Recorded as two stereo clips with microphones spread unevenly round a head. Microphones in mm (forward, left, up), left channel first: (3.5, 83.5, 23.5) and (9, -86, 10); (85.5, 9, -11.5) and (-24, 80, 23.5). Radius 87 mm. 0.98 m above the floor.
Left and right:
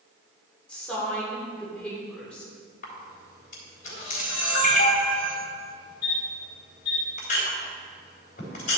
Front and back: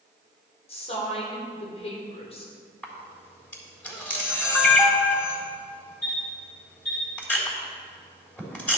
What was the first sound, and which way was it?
A woman speaking, 10° left.